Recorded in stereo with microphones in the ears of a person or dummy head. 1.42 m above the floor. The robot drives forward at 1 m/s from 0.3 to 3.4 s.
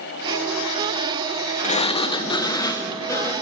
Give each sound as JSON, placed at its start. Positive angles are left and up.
{"t": 1.6, "sound": "a sliding door", "side_deg": 30, "distance_m": 1.1}